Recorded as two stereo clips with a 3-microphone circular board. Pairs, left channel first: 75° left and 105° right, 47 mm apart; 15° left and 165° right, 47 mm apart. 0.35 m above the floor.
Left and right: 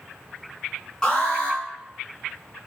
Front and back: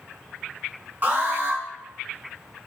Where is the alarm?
150° left, 3 m.